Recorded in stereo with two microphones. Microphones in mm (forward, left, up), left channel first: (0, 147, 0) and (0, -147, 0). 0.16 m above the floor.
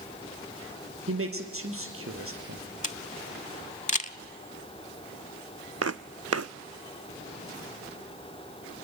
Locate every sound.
1.1 s a man speaking: 45° right (ahead or behind), 3.5 m
2.8 s a camera shutter: 25° left (ahead or behind), 0.6 m
5.8 s footsteps: 55° right (ahead or behind), 0.5 m